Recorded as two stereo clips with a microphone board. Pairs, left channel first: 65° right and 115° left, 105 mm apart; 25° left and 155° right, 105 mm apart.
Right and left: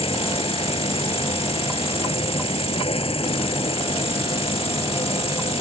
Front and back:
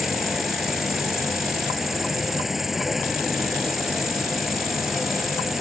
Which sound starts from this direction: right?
An insect, at 0.0 s.